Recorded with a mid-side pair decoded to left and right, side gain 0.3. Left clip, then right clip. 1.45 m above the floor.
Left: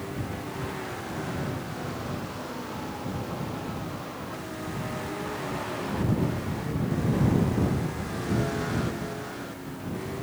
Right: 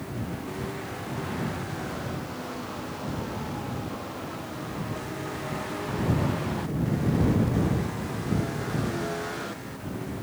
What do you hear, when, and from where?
Only background noise.